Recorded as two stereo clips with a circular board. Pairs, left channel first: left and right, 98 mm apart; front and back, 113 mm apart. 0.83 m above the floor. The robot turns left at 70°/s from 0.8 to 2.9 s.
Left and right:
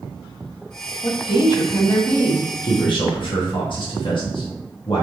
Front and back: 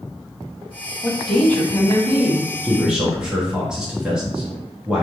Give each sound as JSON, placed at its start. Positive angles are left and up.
{"t": 1.0, "sound": "a woman speaking", "azimuth_deg": 105, "distance_m": 1.2}
{"t": 2.6, "sound": "a man speaking", "azimuth_deg": 115, "distance_m": 1.4}